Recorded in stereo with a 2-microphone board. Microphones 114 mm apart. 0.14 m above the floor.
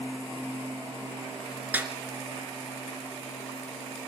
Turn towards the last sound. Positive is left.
turn(degrees=-15)  # may be behind; listen again after turning